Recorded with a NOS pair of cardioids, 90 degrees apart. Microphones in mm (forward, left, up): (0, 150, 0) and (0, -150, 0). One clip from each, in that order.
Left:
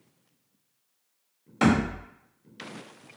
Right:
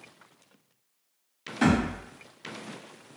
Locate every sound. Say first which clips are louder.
1.6 s a thud: left 1 dB; 45° left, 1.9 m